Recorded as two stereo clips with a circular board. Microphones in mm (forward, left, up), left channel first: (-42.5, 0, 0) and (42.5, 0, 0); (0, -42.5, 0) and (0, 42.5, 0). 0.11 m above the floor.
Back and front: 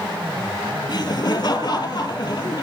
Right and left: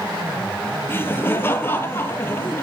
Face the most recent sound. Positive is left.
turn(degrees=-150)